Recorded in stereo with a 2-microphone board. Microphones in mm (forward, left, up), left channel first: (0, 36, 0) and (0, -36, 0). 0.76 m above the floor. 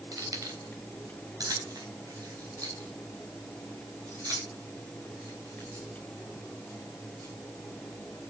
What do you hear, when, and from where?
0.1 s keys jangling: 60° right (ahead or behind), 3 m; by 7.3 s 55° right (ahead or behind), 8 m